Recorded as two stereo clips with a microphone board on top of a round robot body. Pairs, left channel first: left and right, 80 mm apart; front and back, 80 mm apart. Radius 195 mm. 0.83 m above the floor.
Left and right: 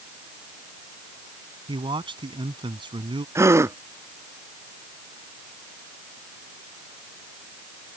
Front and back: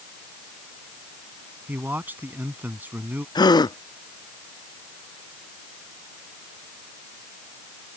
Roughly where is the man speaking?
Right.